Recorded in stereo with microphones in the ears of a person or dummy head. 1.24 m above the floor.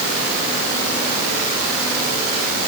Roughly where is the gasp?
I don't hear a gasp.